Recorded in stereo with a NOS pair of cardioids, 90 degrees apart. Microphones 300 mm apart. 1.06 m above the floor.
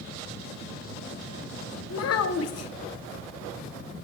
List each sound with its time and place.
1.9 s a child speaking: 55° left, 0.7 m